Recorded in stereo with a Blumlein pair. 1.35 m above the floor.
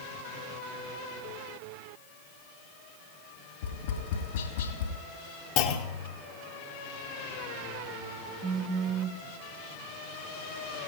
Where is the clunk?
40° left, 1.3 m.